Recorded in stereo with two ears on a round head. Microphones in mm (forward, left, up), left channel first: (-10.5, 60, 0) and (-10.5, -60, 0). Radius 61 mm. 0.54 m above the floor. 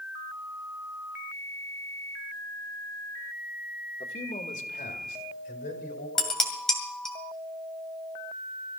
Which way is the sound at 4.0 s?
45° left (ahead or behind).